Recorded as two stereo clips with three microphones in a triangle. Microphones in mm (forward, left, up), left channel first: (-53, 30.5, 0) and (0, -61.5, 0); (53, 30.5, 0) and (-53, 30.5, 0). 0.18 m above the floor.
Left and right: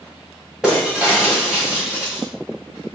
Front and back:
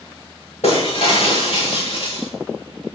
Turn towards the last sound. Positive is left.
turn(degrees=25)